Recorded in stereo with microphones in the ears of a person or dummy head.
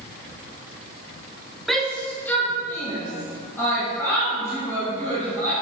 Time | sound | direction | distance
1.7 | a shout | centre (ahead or behind) | 0.5 m